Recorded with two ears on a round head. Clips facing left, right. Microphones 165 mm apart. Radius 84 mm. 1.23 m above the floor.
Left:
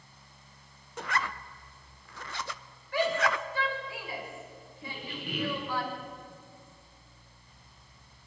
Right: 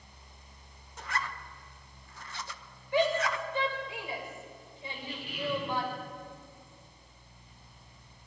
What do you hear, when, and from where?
1.0 s a zipper: 55° left (ahead or behind), 0.7 m
2.9 s a shout: 20° right (ahead or behind), 6.5 m
4.8 s a squeak: 55° left (ahead or behind), 4.5 m